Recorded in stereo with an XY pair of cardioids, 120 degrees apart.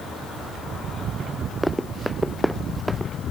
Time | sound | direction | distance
1.6 | running footsteps | straight ahead | ?